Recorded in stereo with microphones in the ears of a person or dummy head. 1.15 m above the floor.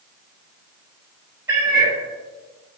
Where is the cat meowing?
20° right (ahead or behind), 0.5 m.